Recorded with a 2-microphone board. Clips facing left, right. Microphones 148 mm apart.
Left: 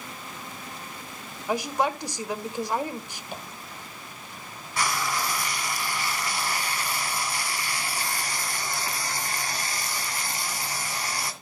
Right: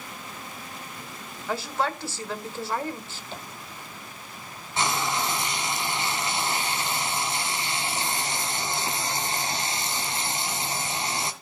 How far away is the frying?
About 2 m.